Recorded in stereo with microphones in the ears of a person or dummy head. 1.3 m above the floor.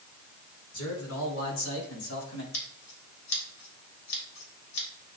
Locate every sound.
0.7 s a man speaking: 85° left, 4.5 m; by 2.4 s 90° left, 3 m
2.5 s scissors: 80° left, 3.5 m